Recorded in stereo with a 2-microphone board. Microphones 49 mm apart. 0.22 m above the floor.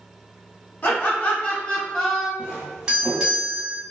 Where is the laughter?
40° left (ahead or behind), 1.9 m; by 2.3 s 10° left (ahead or behind), 1.4 m.